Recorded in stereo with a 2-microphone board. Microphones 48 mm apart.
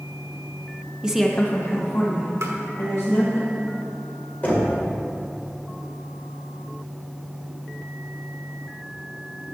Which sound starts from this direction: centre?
A woman speaking, at 1.0 s.